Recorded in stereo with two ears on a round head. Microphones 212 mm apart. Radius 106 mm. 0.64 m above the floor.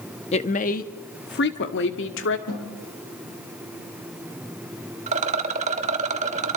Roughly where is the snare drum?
Left.